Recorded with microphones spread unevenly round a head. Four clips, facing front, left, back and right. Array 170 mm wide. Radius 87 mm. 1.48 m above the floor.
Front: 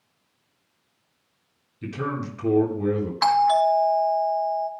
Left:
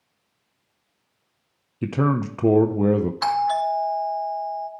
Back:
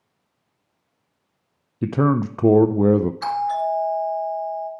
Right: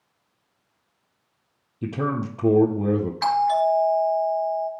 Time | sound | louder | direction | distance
1.8 | a man speaking | left 4 dB, back 10 dB | 170° left | 0.6 m
3.2 | a doorbell | right 5 dB, front 4 dB | 10° left | 3.5 m